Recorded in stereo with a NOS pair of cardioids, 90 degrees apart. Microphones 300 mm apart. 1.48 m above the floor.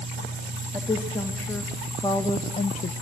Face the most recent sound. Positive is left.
turn(degrees=30)